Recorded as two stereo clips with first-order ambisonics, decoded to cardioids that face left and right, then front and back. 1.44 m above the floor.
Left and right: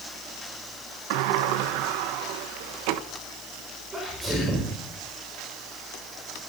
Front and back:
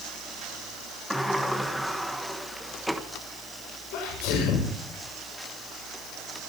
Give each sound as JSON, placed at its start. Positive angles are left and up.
{"t": 1.1, "sound": "a sliding door", "azimuth_deg": -90, "distance_m": 1.3}
{"t": 3.9, "sound": "a sneeze", "azimuth_deg": -15, "distance_m": 7.0}